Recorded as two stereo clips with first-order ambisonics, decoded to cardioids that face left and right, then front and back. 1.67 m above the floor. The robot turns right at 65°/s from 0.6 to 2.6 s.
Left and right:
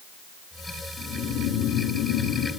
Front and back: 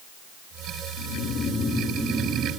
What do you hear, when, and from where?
1.0 s snoring: 20° left, 7 m; by 2.5 s 120° left, 7 m